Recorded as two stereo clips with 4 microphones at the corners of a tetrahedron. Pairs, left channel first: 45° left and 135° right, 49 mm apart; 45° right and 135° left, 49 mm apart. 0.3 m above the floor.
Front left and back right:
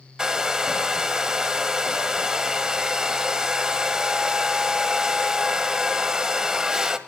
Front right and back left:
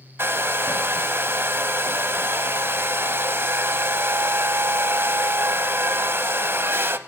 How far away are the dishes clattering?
No dishes clattering in this recording.